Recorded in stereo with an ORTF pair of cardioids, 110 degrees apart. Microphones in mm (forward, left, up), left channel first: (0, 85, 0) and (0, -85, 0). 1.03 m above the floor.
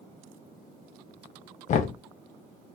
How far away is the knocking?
About 0.7 m.